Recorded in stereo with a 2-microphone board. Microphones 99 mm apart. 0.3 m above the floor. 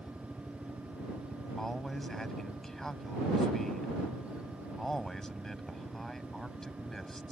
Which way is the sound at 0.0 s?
5° left (ahead or behind).